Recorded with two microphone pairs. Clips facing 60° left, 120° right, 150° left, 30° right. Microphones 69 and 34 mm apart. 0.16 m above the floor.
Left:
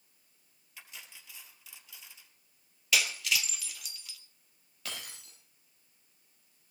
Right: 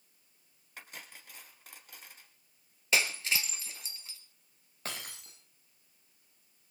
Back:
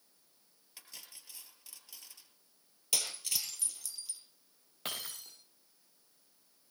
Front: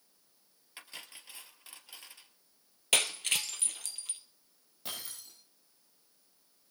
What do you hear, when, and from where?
0.8 s cutlery clinking: 85° right, 2.0 m
2.9 s breaking glass: 65° right, 1.6 m
4.8 s breaking glass: 170° right, 8.5 m